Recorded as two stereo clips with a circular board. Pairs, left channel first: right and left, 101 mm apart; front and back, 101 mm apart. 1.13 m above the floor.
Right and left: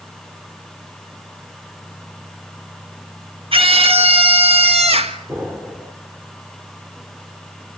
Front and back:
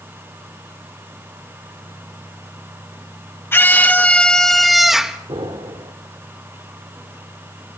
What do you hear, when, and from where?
3.5 s a scream: 65° left, 1.9 m; by 5.2 s 100° left, 1.9 m
5.3 s an explosion: 160° left, 2 m